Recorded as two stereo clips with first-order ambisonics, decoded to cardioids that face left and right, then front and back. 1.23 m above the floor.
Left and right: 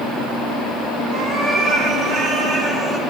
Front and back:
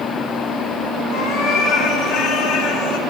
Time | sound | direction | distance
1.1 | a cat meowing | 40° right | 4.5 m